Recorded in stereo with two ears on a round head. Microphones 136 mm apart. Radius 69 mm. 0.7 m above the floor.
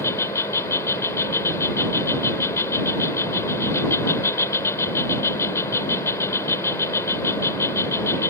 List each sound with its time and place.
0.0 s an insect: 15° left (ahead or behind)